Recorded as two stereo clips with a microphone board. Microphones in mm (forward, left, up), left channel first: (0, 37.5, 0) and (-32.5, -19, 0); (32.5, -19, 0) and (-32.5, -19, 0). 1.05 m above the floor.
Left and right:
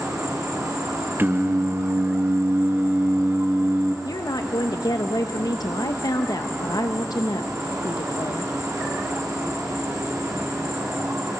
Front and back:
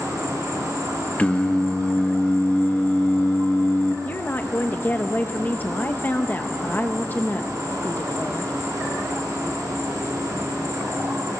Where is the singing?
70° right, 1.2 m.